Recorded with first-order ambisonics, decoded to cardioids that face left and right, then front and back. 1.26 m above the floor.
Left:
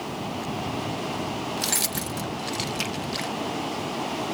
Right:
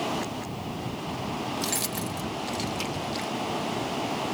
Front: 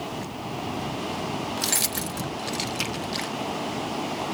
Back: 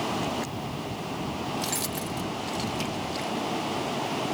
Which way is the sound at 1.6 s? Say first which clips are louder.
Left 5 dB, front 4 dB; 30° left.